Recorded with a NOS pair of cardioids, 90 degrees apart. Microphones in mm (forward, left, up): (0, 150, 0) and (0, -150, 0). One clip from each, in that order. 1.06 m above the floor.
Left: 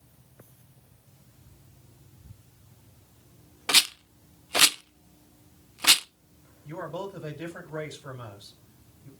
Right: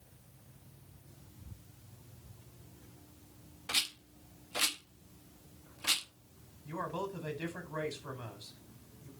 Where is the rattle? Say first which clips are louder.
Left 12 dB; 65° left, 0.7 m.